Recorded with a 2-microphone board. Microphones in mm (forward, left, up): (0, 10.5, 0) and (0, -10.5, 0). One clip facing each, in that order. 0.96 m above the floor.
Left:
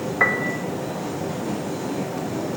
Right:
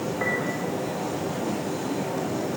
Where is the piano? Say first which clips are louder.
Left 8 dB; 60° left (ahead or behind), 3 m.